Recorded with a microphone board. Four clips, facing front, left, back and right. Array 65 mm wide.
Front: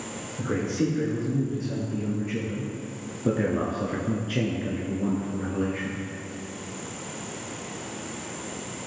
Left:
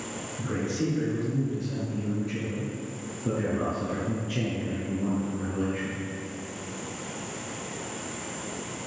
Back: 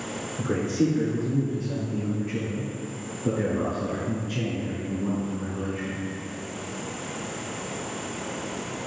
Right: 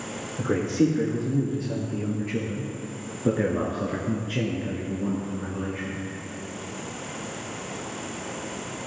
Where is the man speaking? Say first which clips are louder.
Right 7 dB, back 2 dB; 105° right, 3.5 m; by 6.0 s 20° left, 2 m.